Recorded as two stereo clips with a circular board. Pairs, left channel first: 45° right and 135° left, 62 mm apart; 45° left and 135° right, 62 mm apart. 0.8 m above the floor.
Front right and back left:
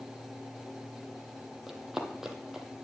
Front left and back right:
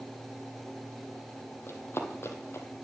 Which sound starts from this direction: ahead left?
Running footsteps, at 1.7 s.